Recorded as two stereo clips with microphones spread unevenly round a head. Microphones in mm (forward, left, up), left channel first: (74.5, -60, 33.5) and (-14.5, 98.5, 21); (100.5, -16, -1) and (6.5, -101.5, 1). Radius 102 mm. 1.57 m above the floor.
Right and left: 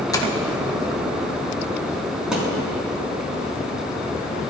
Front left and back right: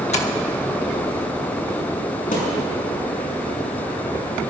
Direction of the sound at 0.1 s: 10° left.